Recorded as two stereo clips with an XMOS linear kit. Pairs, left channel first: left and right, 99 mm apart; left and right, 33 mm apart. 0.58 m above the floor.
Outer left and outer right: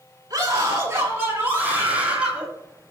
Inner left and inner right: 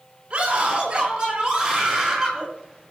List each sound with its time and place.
0.3 s a scream: 35° right (ahead or behind), 6 m; by 2.5 s 10° right (ahead or behind), 6.5 m